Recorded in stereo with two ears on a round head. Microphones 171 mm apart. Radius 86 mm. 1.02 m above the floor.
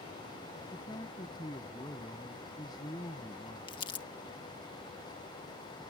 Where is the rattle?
No rattle in this recording.